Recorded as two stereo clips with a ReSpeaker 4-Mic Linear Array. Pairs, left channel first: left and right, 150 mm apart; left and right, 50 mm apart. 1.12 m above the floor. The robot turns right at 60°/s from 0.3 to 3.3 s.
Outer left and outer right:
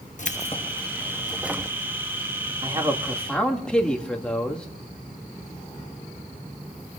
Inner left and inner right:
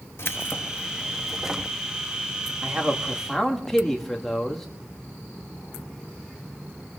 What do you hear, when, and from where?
0.2 s keys jangling: 120° left, 0.8 m; by 1.8 s 155° right, 0.8 m
2.6 s a man speaking: 35° right, 2 m; by 4.7 s 5° left, 2 m